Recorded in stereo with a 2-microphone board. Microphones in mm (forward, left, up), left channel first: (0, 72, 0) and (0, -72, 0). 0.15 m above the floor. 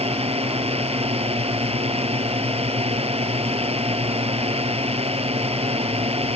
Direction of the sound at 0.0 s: 45° right (ahead or behind).